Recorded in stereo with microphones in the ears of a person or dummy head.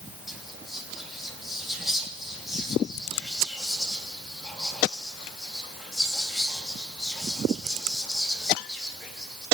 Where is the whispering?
Centre (ahead or behind), 3 m.